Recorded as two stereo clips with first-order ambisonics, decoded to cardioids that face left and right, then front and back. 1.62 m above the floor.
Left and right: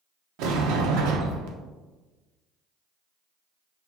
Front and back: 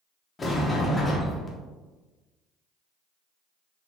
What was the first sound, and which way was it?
A sliding door, 75° right.